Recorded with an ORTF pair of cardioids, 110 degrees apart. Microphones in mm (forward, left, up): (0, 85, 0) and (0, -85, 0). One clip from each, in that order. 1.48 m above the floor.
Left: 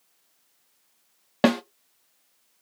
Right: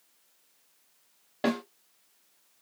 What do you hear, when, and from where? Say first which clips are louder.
1.4 s a snare drum: left 8 dB; 60° left, 0.6 m